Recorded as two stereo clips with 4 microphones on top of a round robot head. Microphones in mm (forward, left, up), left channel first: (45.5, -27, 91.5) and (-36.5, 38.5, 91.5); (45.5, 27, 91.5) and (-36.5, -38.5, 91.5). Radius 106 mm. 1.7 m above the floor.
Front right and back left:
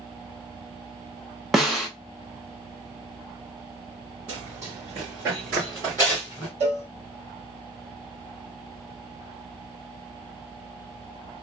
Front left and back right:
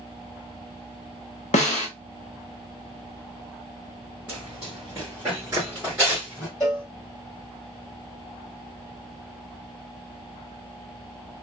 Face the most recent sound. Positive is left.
turn(degrees=125)